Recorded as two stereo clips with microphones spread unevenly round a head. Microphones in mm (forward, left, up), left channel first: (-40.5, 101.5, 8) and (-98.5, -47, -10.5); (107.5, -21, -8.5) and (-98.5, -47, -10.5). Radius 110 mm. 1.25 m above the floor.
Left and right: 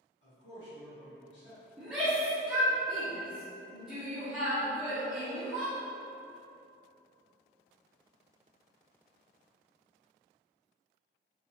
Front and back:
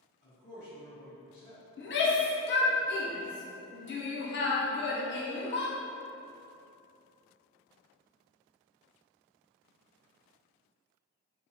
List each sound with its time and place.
0.2 s a man speaking: 55° left, 1.3 m
1.8 s a shout: 25° right, 0.7 m